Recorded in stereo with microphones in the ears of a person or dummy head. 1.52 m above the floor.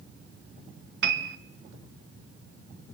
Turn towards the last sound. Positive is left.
turn(degrees=-60)  # may be behind; listen again after turning